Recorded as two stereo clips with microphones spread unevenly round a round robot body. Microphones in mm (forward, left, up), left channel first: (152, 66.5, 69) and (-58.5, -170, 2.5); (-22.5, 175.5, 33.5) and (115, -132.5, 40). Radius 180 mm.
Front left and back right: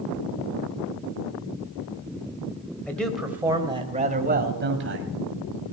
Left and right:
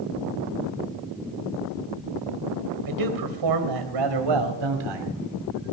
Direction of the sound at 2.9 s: 40° right.